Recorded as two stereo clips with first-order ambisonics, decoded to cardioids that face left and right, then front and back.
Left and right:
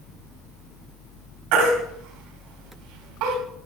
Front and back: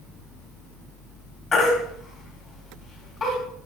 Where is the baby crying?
70° right, 4.5 m.